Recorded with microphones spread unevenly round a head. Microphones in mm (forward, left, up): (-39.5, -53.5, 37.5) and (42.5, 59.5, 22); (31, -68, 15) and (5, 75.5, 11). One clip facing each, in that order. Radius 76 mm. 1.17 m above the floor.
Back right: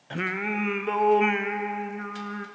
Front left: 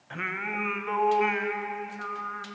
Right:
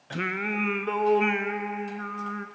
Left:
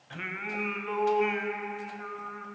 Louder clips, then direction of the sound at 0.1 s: Back right 5 dB, right 7 dB; 75° right.